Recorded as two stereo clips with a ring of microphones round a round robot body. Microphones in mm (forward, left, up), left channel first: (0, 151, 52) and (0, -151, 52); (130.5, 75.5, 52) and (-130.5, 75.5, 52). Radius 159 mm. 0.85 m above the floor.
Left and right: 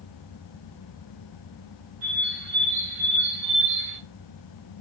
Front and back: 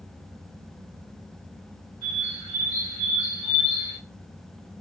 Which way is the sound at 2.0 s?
60° right.